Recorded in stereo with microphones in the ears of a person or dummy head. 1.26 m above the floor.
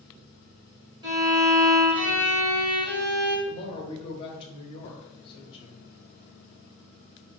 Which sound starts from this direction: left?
A woman speaking, at 3.5 s.